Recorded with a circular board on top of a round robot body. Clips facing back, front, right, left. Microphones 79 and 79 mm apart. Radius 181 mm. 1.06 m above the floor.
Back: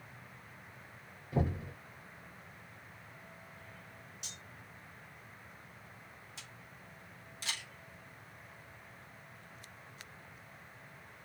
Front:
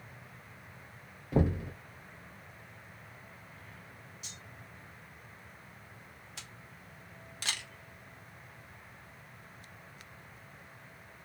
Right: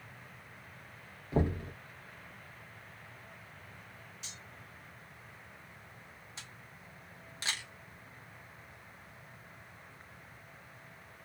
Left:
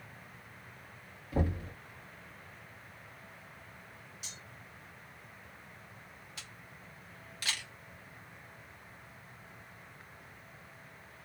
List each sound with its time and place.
1.3 s knocking: 25° right, 0.8 m
4.2 s cutlery clinking: 170° left, 0.7 m
6.4 s a camera shutter: 25° right, 0.9 m